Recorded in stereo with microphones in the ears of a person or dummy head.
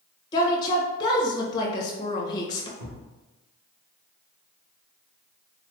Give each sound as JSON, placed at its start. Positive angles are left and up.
{"t": 0.3, "sound": "a woman speaking", "side_deg": 20, "distance_m": 0.9}
{"t": 2.8, "sound": "a thud", "side_deg": -50, "distance_m": 1.4}